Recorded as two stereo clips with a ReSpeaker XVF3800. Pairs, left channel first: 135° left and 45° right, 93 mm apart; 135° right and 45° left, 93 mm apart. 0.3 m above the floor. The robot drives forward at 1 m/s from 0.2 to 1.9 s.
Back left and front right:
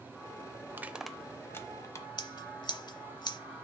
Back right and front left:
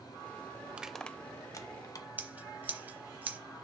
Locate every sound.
0.7 s crushing: 15° right, 0.6 m; by 2.1 s 175° right, 1.0 m
2.2 s scissors: 115° left, 0.8 m